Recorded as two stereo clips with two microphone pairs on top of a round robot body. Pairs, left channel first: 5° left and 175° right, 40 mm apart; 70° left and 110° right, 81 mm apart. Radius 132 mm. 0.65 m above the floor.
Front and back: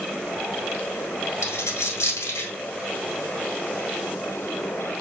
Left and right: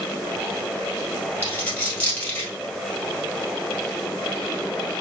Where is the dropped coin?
5° right, 1.8 m.